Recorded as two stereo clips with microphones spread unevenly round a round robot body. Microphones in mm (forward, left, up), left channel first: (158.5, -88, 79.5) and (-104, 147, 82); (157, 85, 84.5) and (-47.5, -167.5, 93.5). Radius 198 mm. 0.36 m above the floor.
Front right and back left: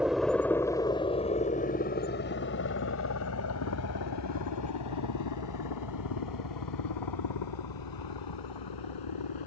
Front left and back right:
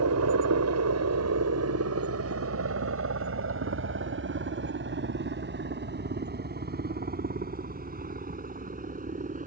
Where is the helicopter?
135° right; by 9.5 s 65° right.